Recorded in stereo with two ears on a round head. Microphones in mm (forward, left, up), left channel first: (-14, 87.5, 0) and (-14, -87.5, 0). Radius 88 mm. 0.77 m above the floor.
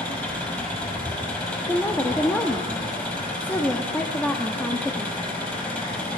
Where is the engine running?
10° left (ahead or behind), 5 m.